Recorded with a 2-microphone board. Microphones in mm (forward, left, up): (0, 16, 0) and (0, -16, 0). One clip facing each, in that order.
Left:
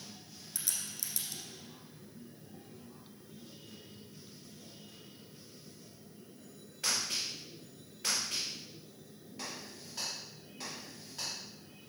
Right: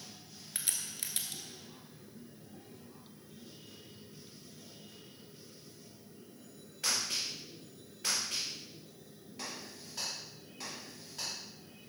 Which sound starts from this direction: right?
A crack, at 0.6 s.